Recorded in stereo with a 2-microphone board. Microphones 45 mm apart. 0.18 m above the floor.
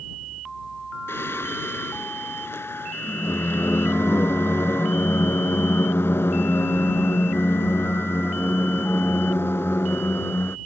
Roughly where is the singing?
Left.